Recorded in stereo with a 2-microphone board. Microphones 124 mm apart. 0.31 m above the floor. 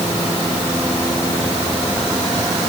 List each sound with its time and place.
Only background noise.